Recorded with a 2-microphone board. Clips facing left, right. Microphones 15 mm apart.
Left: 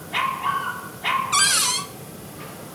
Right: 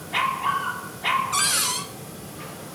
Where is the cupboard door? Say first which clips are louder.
Left 4 dB; 25° left (ahead or behind), 0.5 m.